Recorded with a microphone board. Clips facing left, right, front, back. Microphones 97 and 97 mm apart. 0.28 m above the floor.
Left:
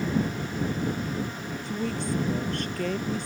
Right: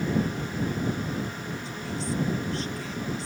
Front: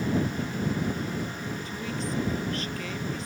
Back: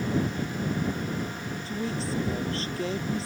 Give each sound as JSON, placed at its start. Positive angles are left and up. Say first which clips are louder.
{"t": 1.6, "sound": "a woman speaking", "louder": "left 5 dB, back 5 dB", "azimuth_deg": 120}